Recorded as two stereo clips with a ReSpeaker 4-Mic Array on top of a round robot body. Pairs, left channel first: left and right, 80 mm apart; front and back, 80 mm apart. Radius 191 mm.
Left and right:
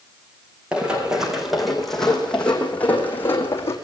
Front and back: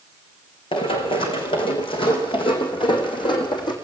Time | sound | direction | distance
0.7 | running footsteps | 10° right | 3.5 m